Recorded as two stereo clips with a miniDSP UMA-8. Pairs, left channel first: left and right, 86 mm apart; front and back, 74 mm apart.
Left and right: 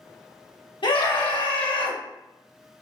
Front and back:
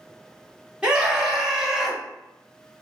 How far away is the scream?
About 1.4 m.